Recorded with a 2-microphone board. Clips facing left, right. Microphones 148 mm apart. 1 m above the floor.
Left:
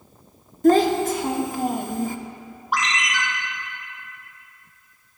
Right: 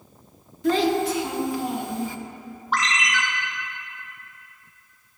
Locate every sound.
0.6 s a child speaking: 45° left (ahead or behind), 0.7 m
2.7 s a ringtone: 10° left (ahead or behind), 1.9 m